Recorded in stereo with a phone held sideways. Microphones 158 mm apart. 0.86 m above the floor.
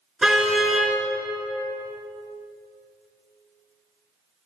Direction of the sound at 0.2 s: Centre (ahead or behind).